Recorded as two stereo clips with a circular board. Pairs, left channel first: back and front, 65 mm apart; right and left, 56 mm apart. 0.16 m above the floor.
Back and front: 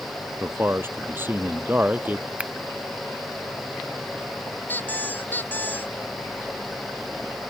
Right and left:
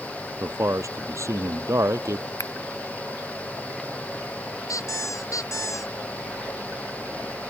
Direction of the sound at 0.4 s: 55° left.